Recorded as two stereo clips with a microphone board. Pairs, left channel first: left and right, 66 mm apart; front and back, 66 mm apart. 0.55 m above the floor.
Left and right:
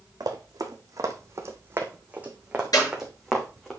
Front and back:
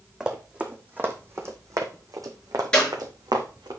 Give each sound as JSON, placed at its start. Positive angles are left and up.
{"t": 0.2, "sound": "running footsteps", "azimuth_deg": -100, "distance_m": 2.0}
{"t": 2.7, "sound": "a clap", "azimuth_deg": 75, "distance_m": 6.0}